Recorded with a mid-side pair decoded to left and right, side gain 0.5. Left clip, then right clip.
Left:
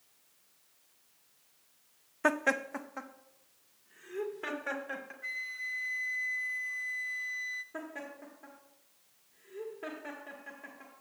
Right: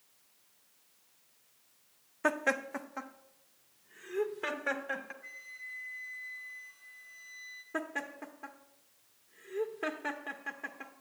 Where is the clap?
I don't hear a clap.